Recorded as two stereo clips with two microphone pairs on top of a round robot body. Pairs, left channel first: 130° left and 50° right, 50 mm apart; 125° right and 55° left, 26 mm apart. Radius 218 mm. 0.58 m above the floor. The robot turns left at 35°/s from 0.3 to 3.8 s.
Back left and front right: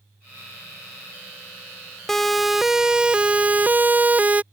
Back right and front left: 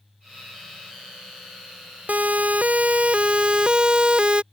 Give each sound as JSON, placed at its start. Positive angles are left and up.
{"t": 2.1, "sound": "a siren", "azimuth_deg": 45}